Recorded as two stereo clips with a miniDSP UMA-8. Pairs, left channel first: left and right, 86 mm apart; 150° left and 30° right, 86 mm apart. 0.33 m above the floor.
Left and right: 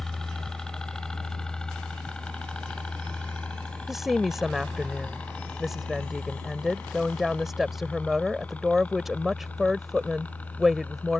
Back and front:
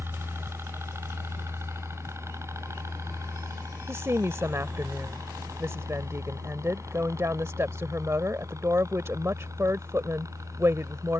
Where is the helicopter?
10° left; by 11.2 s 20° left.